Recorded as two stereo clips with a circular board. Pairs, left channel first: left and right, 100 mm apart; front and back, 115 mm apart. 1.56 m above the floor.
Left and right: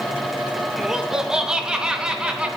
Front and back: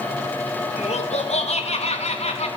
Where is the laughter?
5° right, 2.5 m; by 2.5 s 10° right, 3.5 m.